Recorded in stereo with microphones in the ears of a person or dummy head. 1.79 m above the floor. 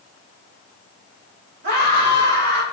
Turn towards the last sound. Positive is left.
turn(degrees=-55)  # may be behind; listen again after turning